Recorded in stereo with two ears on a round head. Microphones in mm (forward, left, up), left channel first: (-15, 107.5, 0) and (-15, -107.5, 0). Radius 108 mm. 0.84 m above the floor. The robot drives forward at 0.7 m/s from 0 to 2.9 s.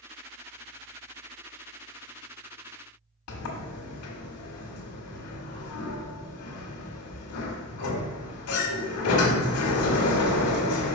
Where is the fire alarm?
No fire alarm in this recording.